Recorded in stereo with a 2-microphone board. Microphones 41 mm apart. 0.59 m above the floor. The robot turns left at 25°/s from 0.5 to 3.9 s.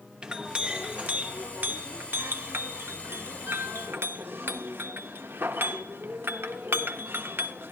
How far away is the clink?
About 0.6 m.